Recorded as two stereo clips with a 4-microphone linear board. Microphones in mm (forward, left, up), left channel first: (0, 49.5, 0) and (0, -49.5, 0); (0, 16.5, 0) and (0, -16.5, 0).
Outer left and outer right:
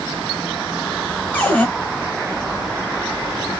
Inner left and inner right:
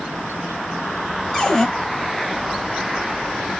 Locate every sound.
1.3 s a cupboard door: 15° left (ahead or behind), 0.8 m